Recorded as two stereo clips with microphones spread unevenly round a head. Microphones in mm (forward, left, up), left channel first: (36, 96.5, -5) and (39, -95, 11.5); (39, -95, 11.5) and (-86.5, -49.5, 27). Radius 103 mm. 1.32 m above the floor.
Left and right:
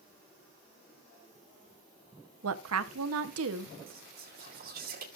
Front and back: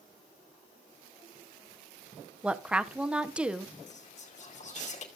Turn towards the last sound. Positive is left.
turn(degrees=-50)